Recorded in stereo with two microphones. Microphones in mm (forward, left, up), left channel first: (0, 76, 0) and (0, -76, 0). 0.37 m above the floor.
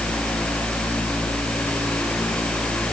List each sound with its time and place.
Only background noise.